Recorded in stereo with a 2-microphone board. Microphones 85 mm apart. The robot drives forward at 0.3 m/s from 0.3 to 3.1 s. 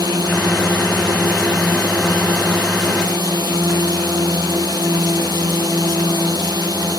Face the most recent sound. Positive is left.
turn(degrees=-50)  # may be behind; listen again after turning